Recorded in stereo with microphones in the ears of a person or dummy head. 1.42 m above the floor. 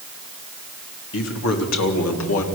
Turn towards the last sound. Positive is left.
turn(degrees=80)